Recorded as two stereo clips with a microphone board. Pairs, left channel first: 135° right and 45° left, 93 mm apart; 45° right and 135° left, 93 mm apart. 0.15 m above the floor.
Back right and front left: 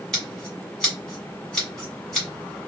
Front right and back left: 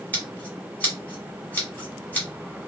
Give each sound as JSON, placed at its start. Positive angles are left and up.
{"t": 0.1, "sound": "scissors", "azimuth_deg": -70, "distance_m": 1.7}